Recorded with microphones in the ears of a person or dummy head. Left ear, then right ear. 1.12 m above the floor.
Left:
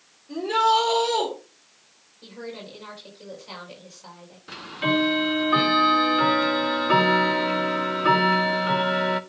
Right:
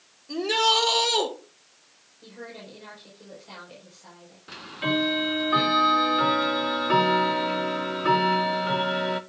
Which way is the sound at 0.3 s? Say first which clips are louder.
Left 1 dB; 55° right (ahead or behind).